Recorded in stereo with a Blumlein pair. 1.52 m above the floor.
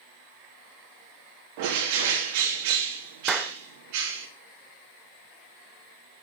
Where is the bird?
45° right, 3.5 m.